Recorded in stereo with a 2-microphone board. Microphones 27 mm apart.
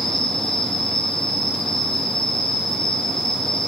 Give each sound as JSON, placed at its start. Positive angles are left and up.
{"t": 0.0, "sound": "an insect", "side_deg": 25, "distance_m": 2.0}